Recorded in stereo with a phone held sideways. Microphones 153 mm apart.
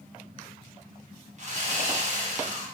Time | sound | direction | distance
1.4 | sawing | 50° right (ahead or behind) | 0.6 m